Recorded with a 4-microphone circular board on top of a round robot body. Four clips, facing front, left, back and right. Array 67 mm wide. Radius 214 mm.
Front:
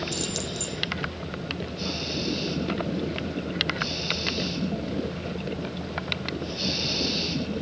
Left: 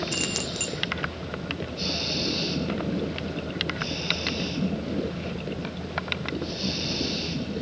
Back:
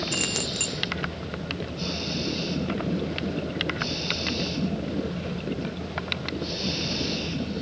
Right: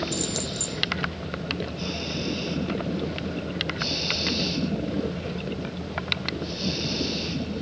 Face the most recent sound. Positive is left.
turn(degrees=150)